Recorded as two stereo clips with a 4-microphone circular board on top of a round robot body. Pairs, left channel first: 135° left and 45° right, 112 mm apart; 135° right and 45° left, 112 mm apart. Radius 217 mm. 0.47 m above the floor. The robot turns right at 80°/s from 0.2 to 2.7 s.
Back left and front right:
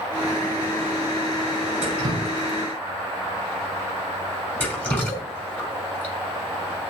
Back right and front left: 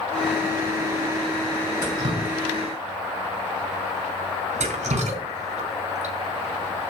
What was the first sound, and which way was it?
Dripping, 10° right.